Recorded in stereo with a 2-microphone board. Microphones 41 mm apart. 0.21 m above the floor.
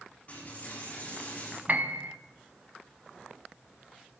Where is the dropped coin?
35° left (ahead or behind), 5.5 m.